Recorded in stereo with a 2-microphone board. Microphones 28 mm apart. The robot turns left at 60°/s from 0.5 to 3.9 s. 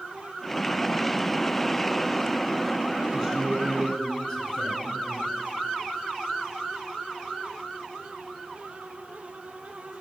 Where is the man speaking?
170° left, 2 m; by 5.4 s 125° left, 2 m.